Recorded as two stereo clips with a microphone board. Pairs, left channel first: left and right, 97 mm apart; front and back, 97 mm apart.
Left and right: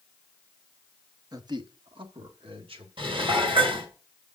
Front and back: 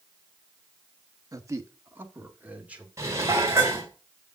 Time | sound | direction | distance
1.3 | a man speaking | 130° right | 1.2 m
3.0 | dishes clattering | 120° right | 3.5 m